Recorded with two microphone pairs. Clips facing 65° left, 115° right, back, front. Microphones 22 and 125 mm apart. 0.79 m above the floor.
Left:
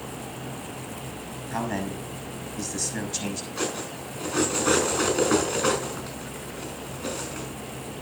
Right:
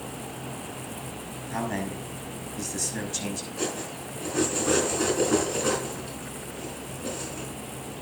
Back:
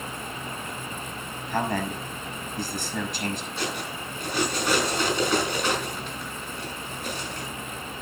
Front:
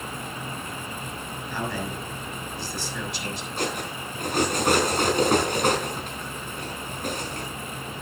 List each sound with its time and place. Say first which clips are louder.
1.5 s a man speaking: left 1 dB, back 4 dB; 135° left, 6 m
3.6 s cutlery clinking: left 2 dB, front 2 dB; 40° left, 5 m